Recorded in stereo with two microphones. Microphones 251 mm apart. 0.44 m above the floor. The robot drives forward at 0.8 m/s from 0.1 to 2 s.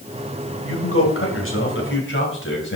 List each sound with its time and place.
0.7 s a man speaking: 60° left (ahead or behind), 2.5 m; by 2.8 s 50° left (ahead or behind), 3 m